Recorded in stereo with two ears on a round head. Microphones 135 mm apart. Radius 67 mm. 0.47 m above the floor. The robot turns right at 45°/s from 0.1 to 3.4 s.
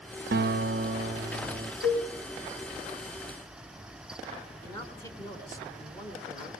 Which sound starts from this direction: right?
A guitar, at 0.3 s.